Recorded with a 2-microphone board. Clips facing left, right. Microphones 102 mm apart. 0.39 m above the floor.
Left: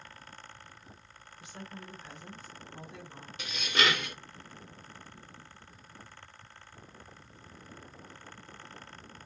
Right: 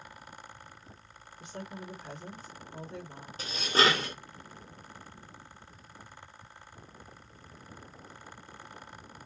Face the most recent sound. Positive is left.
turn(degrees=-35)  # may be behind; listen again after turning